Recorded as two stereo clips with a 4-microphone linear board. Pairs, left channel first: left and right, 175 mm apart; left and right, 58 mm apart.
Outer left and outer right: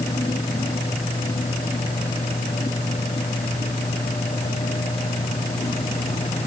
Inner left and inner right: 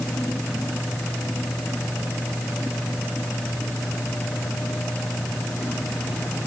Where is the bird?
I don't hear a bird.